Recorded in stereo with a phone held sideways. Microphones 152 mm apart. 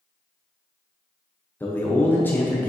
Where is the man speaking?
15° left (ahead or behind), 0.5 m.